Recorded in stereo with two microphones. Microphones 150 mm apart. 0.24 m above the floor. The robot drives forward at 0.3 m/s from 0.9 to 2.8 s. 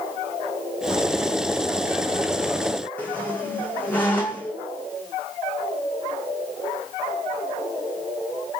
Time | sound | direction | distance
3.0 | a squeak | 10° left (ahead or behind) | 0.6 m